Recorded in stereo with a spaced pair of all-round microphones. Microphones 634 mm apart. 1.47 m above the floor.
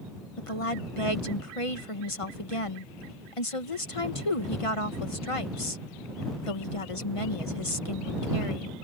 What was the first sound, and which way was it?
A woman speaking, 50° left (ahead or behind).